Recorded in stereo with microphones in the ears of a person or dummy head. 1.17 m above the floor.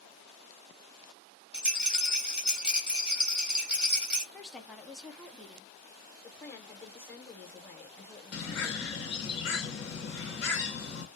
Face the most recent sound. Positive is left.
turn(degrees=65)  # may be behind; listen again after turning